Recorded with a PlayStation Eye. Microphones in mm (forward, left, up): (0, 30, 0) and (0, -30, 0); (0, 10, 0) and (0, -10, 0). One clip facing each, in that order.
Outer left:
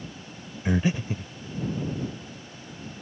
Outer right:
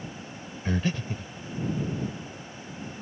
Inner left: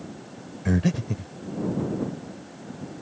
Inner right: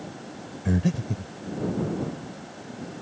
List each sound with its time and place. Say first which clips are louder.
0.7 s breathing: outer left 4 dB, inner left 1 dB; 15° left (ahead or behind)